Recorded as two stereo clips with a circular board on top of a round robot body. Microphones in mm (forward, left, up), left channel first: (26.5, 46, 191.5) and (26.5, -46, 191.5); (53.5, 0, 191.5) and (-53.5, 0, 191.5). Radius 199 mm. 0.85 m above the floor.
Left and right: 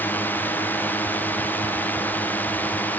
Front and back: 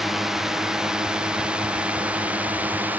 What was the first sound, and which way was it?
A drone, 100° left.